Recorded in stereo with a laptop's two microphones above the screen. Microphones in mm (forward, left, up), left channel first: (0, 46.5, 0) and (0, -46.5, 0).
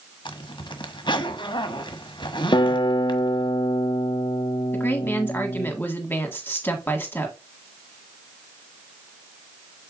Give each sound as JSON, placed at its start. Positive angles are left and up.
{"t": 0.2, "sound": "a zipper", "side_deg": 55, "distance_m": 1.5}
{"t": 2.5, "sound": "a guitar", "side_deg": 50, "distance_m": 0.6}
{"t": 4.7, "sound": "a woman speaking", "side_deg": 20, "distance_m": 1.8}